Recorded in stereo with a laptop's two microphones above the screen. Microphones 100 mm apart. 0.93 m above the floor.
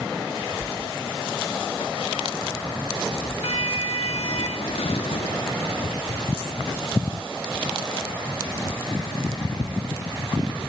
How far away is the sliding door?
About 1.3 m.